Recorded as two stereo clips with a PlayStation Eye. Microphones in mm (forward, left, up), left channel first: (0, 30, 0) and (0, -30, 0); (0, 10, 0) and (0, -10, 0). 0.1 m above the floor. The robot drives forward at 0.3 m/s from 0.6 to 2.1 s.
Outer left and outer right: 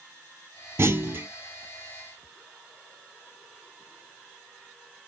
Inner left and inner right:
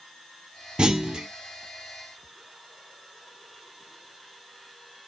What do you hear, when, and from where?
0.8 s a clunk: 45° right (ahead or behind), 0.5 m; by 1.3 s 35° right (ahead or behind), 0.6 m